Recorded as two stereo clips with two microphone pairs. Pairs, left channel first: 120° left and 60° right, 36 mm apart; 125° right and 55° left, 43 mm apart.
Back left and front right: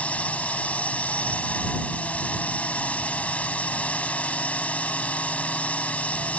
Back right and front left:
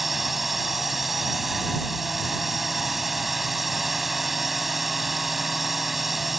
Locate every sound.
0.0 s a drone: 140° left